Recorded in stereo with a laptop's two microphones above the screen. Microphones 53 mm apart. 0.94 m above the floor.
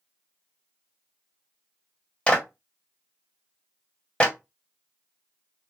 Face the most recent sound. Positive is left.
turn(degrees=15)  # may be behind; listen again after turning